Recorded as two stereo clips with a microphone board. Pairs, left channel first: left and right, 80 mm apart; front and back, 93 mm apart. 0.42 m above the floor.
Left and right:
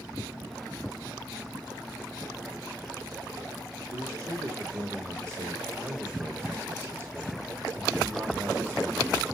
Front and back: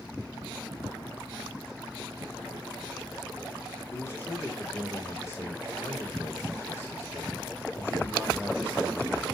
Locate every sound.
3.9 s a man speaking: 50° right, 1.4 m